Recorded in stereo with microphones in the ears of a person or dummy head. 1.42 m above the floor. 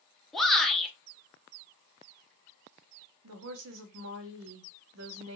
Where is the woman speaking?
75° right (ahead or behind), 1.1 m.